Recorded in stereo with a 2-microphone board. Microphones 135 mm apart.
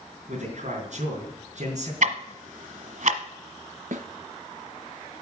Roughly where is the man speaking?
Right.